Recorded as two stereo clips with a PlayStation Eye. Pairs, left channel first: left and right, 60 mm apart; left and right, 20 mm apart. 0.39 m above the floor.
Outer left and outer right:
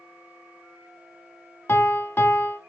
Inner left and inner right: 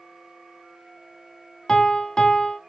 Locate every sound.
1.7 s a piano: 40° left (ahead or behind), 0.5 m